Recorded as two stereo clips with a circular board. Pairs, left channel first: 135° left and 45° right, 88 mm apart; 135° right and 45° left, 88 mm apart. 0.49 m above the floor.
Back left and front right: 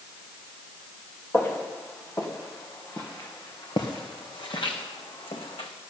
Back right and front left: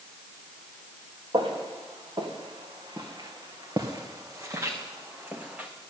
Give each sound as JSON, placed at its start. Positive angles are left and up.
{"t": 1.3, "sound": "footsteps", "azimuth_deg": 70, "distance_m": 3.5}